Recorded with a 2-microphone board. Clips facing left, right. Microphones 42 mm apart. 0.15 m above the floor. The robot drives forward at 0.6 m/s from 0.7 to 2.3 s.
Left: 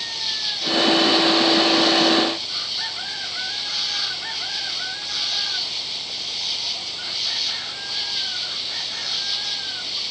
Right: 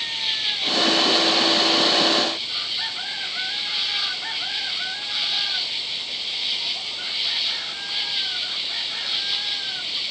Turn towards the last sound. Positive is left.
turn(degrees=-25)  # may be behind; listen again after turning